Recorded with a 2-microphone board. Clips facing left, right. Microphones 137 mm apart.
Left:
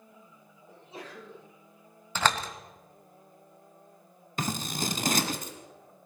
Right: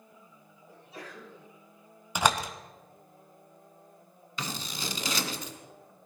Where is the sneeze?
25° left (ahead or behind), 8.5 m.